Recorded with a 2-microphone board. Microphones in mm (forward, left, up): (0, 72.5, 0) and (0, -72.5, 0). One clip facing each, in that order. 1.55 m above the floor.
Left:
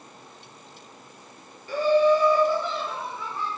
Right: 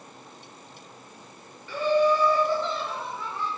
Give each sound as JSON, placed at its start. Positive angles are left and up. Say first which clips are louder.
{"t": 1.7, "sound": "laughter", "louder": "left 3 dB", "side_deg": 45, "distance_m": 0.7}